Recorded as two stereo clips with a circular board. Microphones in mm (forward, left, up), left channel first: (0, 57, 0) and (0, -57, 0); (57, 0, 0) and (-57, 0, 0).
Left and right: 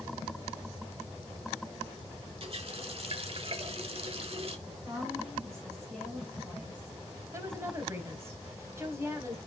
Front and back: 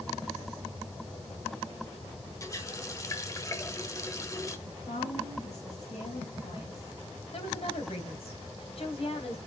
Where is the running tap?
60° right, 1.3 m.